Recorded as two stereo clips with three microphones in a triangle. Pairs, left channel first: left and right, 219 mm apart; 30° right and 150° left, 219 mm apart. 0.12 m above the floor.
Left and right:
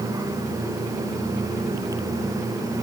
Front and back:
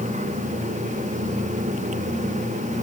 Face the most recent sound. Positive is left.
No sound to turn to.